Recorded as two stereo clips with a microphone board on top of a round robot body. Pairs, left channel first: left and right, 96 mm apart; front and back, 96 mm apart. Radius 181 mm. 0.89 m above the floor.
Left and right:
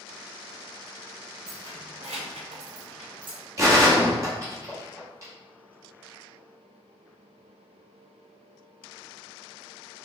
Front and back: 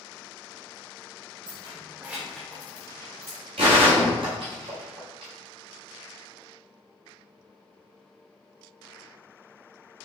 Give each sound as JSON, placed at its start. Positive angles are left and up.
{"t": 1.5, "sound": "keys jangling", "azimuth_deg": -140, "distance_m": 0.5}
{"t": 3.6, "sound": "a gunshot", "azimuth_deg": -150, "distance_m": 1.5}